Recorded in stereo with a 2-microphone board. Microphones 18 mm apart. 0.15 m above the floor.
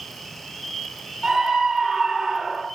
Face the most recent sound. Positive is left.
turn(degrees=-25)  # may be behind; listen again after turning